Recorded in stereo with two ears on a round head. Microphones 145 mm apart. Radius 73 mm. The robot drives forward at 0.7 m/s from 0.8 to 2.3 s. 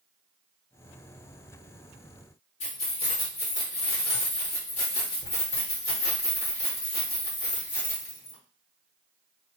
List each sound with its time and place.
2.6 s keys jangling: 40° left (ahead or behind), 1.0 m